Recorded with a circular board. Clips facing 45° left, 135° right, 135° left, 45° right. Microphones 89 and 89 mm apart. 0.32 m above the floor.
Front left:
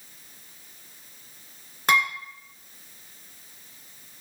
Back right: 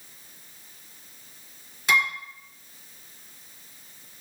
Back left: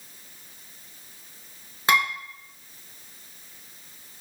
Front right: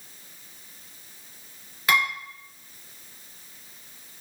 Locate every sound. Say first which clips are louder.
1.9 s dishes clattering: front left 2 dB, back left 1 dB; 80° left, 2.5 m